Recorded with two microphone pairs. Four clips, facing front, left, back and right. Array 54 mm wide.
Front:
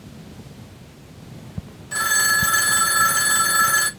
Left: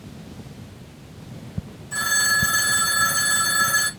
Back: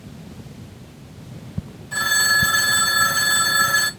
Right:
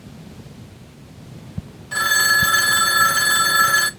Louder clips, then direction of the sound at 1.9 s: Right 5 dB, back 1 dB; 65° right.